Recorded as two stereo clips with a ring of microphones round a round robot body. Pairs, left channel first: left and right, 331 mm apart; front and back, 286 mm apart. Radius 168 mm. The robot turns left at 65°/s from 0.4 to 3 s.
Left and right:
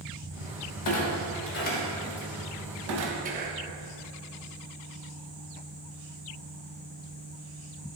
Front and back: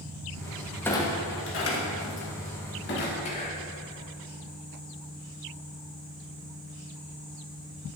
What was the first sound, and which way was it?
A clunk, 85° left.